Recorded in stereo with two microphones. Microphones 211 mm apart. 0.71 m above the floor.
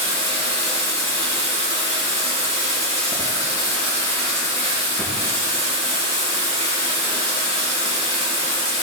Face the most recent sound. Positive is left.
turn(degrees=-30)  # may be behind; listen again after turning